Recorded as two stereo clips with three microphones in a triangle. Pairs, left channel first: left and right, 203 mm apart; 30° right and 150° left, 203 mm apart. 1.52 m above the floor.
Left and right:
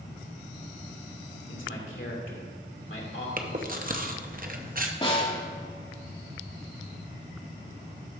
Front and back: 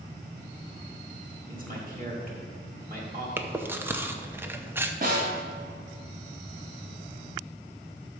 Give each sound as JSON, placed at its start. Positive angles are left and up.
{"t": 1.5, "sound": "a man speaking", "azimuth_deg": 105, "distance_m": 2.0}
{"t": 3.4, "sound": "chewing", "azimuth_deg": -130, "distance_m": 0.7}
{"t": 5.0, "sound": "a snare drum", "azimuth_deg": 140, "distance_m": 1.9}